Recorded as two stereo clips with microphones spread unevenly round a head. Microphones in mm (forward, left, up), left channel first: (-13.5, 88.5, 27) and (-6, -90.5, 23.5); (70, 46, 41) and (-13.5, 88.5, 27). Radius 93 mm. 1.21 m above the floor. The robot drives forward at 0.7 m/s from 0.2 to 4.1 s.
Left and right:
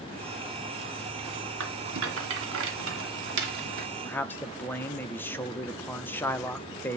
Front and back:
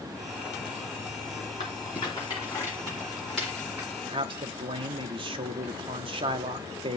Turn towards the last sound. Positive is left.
turn(degrees=170)